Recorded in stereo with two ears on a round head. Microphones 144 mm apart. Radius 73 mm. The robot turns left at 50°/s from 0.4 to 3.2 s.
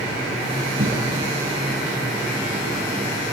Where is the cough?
55° right (ahead or behind), 5.5 m; by 1.3 s 30° right (ahead or behind), 5.5 m.